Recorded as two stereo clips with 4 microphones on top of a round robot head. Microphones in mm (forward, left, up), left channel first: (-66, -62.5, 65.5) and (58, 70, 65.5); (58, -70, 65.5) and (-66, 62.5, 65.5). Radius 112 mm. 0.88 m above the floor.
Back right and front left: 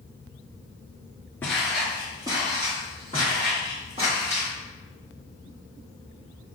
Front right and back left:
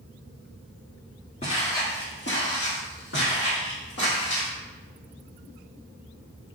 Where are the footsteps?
60° right, 0.9 m; by 4.5 s 15° right, 3 m.